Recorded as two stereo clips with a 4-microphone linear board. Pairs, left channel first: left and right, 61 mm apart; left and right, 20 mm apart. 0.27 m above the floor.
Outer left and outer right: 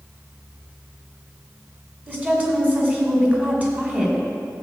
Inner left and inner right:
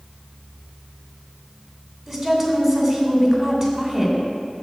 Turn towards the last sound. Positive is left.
turn(degrees=-25)  # may be behind; listen again after turning